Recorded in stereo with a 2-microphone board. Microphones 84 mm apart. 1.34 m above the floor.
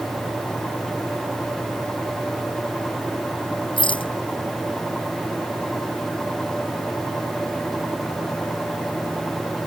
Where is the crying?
No crying in this recording.